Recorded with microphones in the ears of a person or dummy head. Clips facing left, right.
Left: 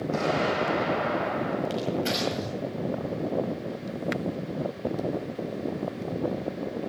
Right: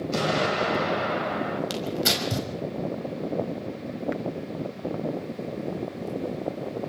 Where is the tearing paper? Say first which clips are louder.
Left 1 dB; 75° right (ahead or behind), 5 m.